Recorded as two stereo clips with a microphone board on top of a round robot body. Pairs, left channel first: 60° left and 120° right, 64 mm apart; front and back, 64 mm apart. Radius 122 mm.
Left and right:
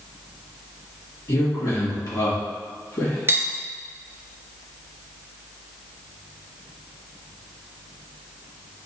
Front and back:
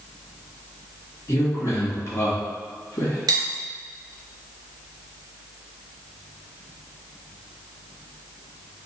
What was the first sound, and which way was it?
A man speaking, 40° left.